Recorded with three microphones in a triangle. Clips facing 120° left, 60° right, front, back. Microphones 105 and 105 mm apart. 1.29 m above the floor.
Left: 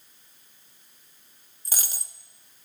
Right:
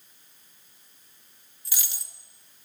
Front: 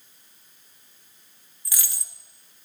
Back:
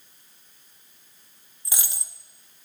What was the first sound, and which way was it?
A dropped coin, 125° left.